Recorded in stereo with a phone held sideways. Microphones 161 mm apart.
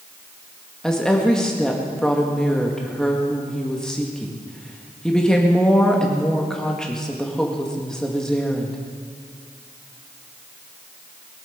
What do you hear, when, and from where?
0.8 s a woman speaking: 5° left (ahead or behind), 1.6 m